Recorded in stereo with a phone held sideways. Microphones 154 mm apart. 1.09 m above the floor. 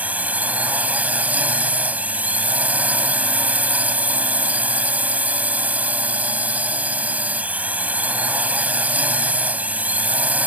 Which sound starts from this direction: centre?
A drone, at 0.0 s.